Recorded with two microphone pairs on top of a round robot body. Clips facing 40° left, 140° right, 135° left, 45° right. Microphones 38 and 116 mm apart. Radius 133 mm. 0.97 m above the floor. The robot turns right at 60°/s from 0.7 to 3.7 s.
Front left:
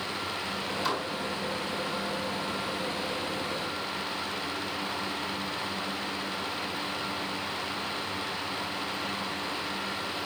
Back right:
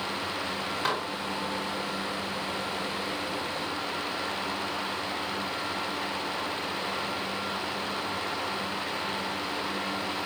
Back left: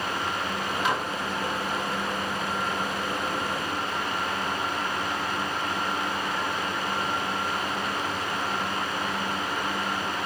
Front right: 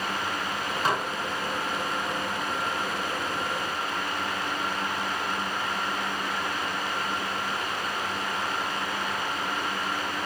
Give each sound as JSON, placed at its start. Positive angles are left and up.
{"t": 0.8, "sound": "dishes clattering", "azimuth_deg": -100, "distance_m": 3.5}